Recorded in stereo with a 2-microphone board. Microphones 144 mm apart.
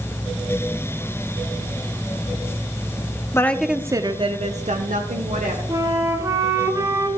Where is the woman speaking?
20° left (ahead or behind), 0.7 m; by 5.6 s 70° right (ahead or behind), 1.7 m.